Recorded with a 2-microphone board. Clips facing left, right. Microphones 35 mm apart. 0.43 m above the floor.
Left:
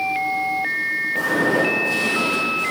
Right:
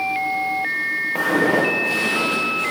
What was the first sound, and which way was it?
Footsteps, 80° right.